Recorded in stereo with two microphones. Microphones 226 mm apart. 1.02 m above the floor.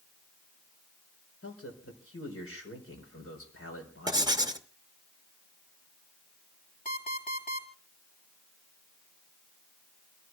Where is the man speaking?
80° left, 4.5 m.